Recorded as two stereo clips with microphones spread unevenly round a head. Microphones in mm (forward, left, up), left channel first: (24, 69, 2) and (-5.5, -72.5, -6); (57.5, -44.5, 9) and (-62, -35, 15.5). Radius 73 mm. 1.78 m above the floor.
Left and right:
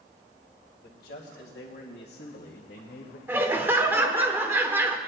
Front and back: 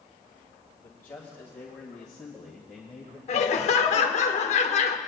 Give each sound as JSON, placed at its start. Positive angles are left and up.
{"t": 0.8, "sound": "a man speaking", "azimuth_deg": 70, "distance_m": 2.0}
{"t": 3.3, "sound": "laughter", "azimuth_deg": -25, "distance_m": 1.1}